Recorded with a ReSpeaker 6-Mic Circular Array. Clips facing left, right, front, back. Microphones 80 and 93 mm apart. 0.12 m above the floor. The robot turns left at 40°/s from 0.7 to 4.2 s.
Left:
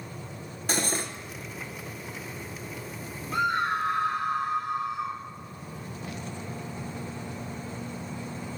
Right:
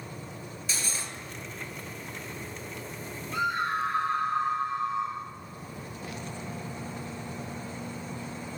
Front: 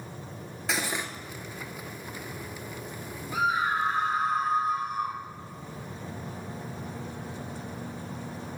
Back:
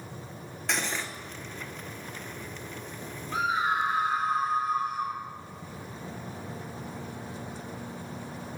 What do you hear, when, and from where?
0.7 s cutlery clinking: 85° left, 1.0 m; by 1.1 s 70° left, 1.0 m
3.3 s a scream: 125° left, 4.5 m; by 5.2 s 90° left, 4.5 m